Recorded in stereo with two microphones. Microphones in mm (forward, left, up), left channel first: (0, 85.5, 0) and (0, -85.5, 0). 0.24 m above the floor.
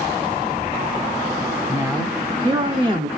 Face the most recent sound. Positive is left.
turn(degrees=-35)  # may be behind; listen again after turning